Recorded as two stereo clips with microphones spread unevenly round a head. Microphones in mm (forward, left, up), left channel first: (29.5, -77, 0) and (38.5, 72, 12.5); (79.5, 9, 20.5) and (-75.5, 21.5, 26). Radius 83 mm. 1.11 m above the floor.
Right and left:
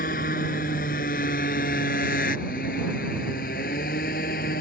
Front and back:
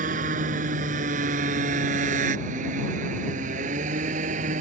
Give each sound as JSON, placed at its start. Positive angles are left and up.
{"t": 0.0, "sound": "a motorcycle", "azimuth_deg": -140}